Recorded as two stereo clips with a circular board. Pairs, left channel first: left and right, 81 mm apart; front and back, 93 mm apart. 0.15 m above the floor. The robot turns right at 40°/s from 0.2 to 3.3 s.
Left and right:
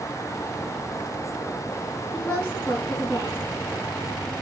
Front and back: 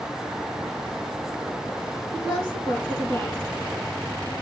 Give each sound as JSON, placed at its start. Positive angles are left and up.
{"t": 2.1, "sound": "a woman speaking", "azimuth_deg": 20, "distance_m": 1.8}